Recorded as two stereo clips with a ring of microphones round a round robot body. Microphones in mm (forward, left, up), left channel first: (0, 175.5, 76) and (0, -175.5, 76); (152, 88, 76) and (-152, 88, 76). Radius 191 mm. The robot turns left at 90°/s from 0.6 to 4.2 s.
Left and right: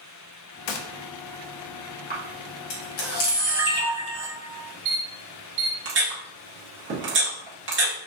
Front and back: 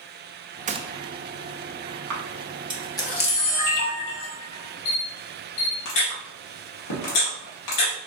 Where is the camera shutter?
160° left, 1.5 m; by 7.9 s 30° right, 1.5 m.